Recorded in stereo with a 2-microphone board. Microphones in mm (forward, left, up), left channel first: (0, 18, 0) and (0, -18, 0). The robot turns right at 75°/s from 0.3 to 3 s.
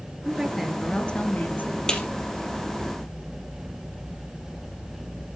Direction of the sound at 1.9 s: 20° left (ahead or behind).